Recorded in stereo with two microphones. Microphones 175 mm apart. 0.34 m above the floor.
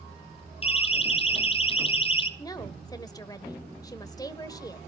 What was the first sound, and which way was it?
A siren, 35° left (ahead or behind).